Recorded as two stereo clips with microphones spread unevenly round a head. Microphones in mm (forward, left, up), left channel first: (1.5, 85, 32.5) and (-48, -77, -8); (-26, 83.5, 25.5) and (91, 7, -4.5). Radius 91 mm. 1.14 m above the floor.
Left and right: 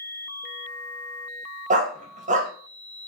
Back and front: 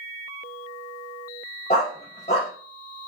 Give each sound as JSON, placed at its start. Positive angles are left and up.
{"t": 1.7, "sound": "a dog barking", "azimuth_deg": -155, "distance_m": 3.0}